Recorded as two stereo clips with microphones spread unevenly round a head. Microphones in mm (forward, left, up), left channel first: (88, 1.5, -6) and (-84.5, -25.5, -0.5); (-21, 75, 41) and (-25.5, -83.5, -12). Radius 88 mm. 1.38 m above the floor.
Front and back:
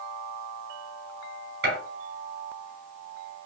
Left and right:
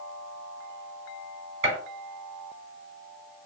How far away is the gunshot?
About 3 m.